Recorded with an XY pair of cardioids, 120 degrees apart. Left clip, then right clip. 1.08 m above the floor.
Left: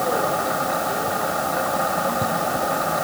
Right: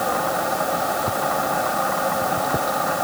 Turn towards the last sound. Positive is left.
No sound to turn to.